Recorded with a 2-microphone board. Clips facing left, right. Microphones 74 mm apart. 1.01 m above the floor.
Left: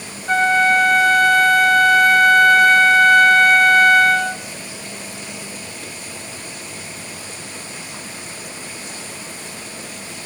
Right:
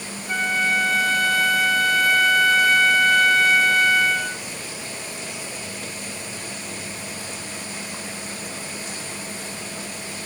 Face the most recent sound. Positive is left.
turn(degrees=55)  # may be behind; listen again after turning